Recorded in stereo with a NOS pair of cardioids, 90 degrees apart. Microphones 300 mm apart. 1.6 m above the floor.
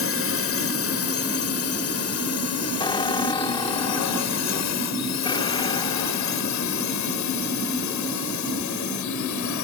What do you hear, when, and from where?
0.0 s a drone: 45° left; by 9.6 s 75° left
2.8 s a squeak: 15° left